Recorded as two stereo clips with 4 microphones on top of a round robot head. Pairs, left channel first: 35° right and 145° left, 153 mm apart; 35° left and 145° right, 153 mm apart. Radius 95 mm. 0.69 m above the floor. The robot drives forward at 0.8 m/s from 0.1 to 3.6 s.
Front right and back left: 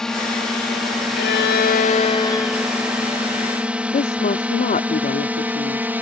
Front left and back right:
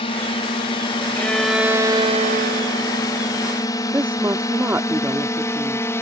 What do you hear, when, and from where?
0.0 s a drone: 50° left; by 6.0 s 85° left
1.1 s a violin: 45° right; by 3.3 s 140° right
3.9 s a woman speaking: 70° right